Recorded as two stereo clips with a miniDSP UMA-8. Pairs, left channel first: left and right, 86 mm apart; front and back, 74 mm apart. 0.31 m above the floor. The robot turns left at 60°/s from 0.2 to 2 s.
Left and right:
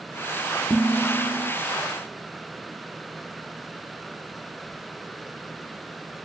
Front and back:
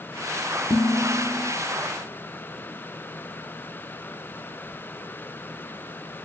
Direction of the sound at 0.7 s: 25° left.